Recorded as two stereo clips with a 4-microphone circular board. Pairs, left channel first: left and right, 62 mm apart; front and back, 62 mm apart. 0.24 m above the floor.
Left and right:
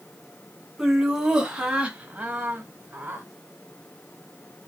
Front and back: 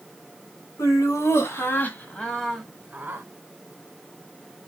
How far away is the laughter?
About 1.9 m.